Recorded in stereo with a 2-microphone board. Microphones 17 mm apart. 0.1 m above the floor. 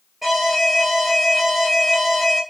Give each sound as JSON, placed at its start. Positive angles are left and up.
{"t": 0.2, "sound": "an alarm", "side_deg": 0, "distance_m": 1.8}